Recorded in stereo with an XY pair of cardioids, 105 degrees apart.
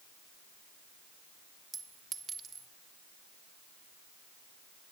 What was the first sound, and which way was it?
A clink, 50° right.